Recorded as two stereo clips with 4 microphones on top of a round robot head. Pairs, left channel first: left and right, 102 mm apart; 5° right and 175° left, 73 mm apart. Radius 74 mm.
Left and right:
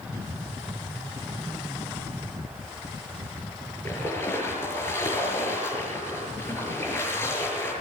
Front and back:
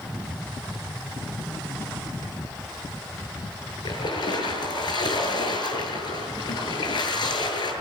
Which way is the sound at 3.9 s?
15° left.